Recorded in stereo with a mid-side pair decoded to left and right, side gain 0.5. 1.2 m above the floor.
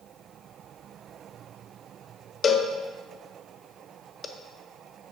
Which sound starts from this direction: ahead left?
A cowbell, at 2.4 s.